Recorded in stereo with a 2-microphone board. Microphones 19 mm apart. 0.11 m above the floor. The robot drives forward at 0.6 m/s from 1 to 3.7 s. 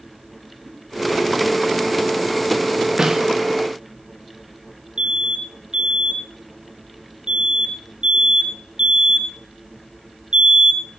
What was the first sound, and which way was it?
A giggle, 85° right.